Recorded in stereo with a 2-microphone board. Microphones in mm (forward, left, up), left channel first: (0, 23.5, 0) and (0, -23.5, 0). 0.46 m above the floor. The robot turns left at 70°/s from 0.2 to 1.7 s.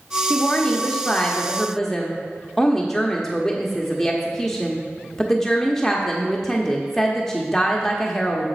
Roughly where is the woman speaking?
Centre.